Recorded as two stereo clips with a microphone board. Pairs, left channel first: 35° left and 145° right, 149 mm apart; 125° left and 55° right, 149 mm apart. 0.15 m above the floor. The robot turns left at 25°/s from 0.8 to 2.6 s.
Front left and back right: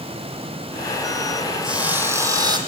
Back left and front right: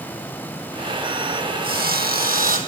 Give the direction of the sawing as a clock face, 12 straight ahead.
2 o'clock.